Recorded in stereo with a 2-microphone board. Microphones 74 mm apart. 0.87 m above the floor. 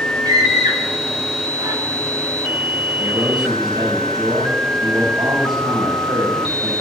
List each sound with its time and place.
0.2 s a scream: 65° right (ahead or behind), 4.5 m
3.0 s a man speaking: 75° right (ahead or behind), 4.5 m